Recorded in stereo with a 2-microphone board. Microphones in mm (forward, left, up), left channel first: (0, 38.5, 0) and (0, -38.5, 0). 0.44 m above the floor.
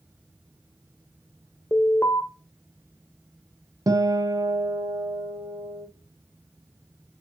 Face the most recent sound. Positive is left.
turn(degrees=-55)  # may be behind; listen again after turning